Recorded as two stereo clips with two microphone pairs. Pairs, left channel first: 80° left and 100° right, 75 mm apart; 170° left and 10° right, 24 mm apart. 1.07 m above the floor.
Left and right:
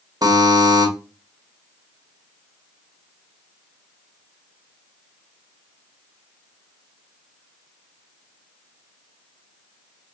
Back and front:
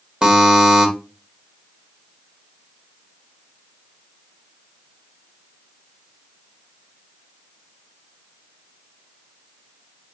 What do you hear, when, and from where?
0.2 s a buzzer: 65° right, 1.2 m